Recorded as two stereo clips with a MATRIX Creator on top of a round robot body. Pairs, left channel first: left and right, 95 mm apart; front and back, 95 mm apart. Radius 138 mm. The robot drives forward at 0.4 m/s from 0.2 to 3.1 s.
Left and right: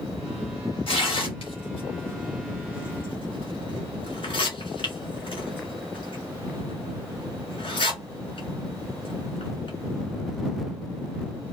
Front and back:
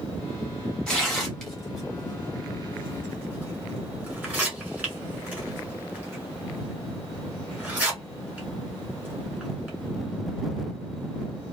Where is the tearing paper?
85° left, 2 m; by 9.7 s 110° left, 2 m.